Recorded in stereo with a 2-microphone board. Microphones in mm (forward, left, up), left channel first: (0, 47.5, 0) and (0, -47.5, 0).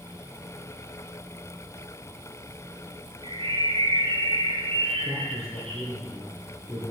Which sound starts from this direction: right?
A bird, at 3.2 s.